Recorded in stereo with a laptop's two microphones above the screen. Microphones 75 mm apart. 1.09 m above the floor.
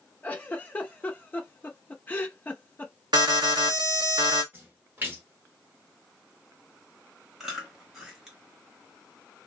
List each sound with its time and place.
0.2 s a giggle: 25° left (ahead or behind), 0.6 m
3.1 s an alarm: 70° right (ahead or behind), 0.9 m
4.5 s a splash: 25° right (ahead or behind), 1.0 m
7.4 s chewing: 5° right (ahead or behind), 1.1 m